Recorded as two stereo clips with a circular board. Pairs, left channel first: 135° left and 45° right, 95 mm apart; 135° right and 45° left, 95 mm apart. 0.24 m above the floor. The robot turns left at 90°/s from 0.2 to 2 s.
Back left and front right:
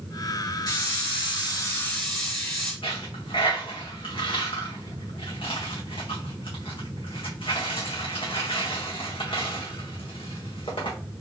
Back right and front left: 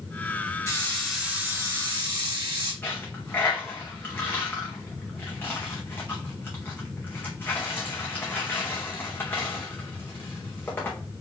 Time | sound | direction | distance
0.7 | a hiss | 170° left | 2.5 m
2.8 | a dropped coin | 155° left | 1.4 m